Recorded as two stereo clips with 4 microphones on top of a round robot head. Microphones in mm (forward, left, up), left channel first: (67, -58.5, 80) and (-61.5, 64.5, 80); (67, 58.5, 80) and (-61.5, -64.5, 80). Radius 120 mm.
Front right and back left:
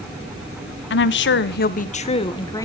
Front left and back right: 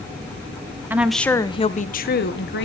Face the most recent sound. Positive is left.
turn(degrees=30)